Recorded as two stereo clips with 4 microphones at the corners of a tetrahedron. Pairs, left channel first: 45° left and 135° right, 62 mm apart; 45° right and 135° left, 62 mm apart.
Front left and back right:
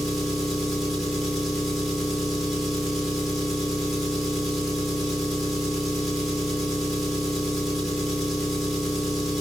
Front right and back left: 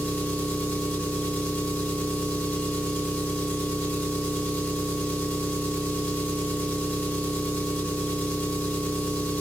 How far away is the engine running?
About 1.1 m.